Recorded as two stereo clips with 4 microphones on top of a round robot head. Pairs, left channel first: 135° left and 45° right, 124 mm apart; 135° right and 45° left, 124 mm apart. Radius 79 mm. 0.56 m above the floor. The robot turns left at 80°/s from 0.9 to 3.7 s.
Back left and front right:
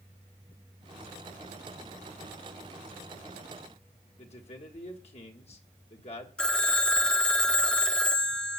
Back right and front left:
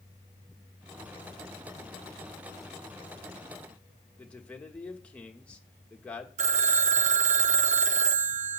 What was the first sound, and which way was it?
A man speaking, 145° left.